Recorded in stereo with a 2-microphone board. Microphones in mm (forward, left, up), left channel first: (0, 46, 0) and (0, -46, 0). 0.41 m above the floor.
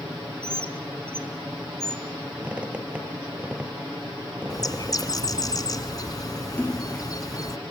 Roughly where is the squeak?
Centre.